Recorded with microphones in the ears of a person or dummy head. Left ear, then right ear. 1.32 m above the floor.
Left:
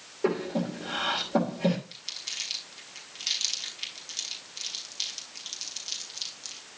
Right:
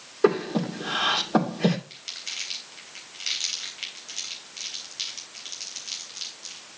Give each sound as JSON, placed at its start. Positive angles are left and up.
{"t": 0.2, "sound": "breathing", "side_deg": -65, "distance_m": 2.5}
{"t": 1.9, "sound": "crumpling", "side_deg": -45, "distance_m": 3.5}